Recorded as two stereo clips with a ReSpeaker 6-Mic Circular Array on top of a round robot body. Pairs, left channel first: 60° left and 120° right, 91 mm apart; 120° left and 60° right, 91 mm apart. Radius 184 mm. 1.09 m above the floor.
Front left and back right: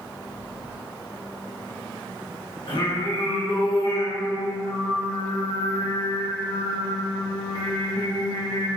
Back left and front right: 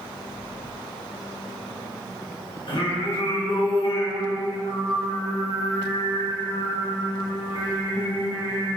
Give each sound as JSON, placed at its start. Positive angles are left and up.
{"t": 2.7, "sound": "singing", "azimuth_deg": 90, "distance_m": 2.5}